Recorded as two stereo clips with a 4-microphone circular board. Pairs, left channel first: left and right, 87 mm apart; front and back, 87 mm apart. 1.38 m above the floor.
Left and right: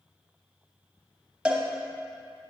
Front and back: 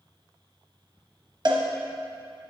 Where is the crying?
No crying in this recording.